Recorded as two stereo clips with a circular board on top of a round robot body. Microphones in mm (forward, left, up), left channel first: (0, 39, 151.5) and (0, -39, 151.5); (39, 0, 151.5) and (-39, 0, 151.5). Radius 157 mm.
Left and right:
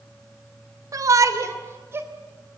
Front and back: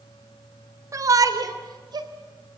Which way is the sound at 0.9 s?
130° right.